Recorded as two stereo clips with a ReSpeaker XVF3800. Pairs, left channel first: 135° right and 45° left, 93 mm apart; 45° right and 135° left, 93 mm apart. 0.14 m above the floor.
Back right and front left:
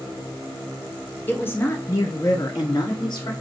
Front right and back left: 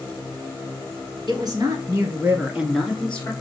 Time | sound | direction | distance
1.3 | a woman speaking | 160° left | 2.0 m